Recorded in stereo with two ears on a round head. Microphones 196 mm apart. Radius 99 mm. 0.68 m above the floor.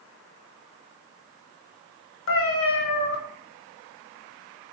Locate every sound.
2.3 s a cat meowing: 65° left (ahead or behind), 1.1 m